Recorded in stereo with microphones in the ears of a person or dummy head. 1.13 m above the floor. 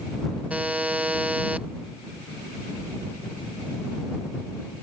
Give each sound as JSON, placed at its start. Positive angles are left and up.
{"t": 0.5, "sound": "a buzzer", "side_deg": -10}